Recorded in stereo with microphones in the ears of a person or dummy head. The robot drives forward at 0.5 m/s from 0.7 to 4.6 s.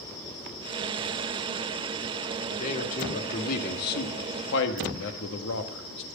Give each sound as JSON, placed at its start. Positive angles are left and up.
{"t": 2.5, "sound": "a man speaking", "side_deg": 40, "distance_m": 2.0}